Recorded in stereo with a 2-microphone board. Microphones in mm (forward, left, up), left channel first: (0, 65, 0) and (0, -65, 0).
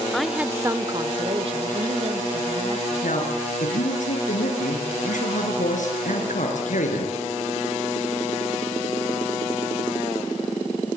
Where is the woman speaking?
5° left (ahead or behind), 1.0 m; by 3.3 s 50° right (ahead or behind), 3 m.